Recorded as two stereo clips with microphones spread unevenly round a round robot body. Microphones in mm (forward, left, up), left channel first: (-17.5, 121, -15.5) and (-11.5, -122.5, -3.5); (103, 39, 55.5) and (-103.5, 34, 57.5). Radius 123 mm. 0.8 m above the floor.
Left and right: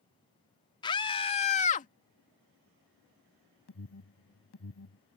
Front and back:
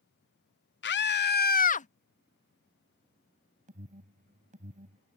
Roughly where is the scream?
Ahead.